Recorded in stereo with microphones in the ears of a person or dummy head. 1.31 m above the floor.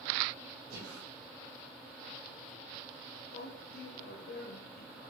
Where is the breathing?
75° right (ahead or behind), 4.5 m.